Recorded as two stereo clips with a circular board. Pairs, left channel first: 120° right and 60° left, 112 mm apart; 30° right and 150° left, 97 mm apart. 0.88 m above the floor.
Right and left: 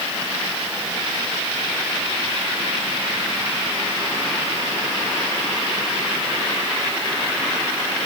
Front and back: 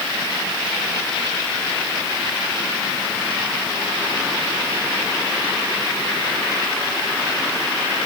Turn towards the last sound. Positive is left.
No sound to turn to.